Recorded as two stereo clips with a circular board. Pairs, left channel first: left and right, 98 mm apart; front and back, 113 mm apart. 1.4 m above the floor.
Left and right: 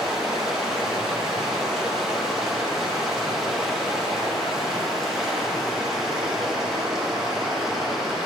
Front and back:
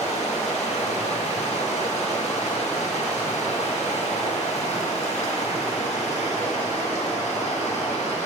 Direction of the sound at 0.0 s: 5° right.